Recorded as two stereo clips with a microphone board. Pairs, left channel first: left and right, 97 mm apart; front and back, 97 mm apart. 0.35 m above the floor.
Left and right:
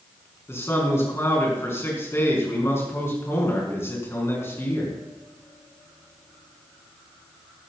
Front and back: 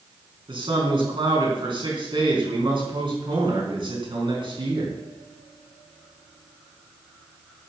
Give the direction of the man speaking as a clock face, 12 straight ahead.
7 o'clock.